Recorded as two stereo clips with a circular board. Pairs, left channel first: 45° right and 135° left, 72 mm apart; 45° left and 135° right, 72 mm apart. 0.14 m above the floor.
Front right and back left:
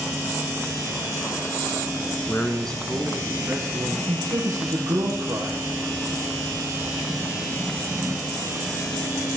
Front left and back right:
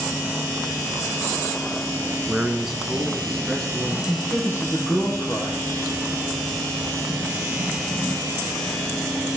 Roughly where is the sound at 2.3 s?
Right.